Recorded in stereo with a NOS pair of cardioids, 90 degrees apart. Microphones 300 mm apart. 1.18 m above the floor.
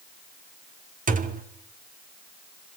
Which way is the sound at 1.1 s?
25° right.